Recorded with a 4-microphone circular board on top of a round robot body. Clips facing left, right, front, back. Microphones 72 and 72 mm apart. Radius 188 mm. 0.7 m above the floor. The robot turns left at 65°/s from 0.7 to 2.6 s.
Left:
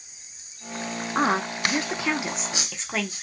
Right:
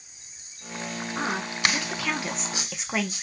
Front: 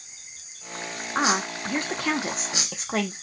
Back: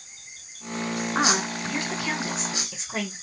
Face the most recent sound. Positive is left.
turn(degrees=-10)